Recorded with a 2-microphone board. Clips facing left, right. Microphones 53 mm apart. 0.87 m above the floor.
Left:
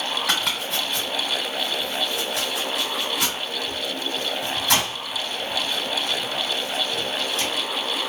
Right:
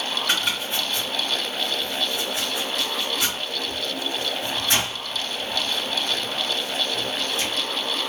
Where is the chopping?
70° left (ahead or behind), 1.9 m.